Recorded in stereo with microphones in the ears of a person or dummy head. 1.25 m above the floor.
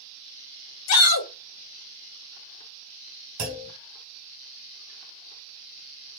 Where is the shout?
85° left, 1.5 m.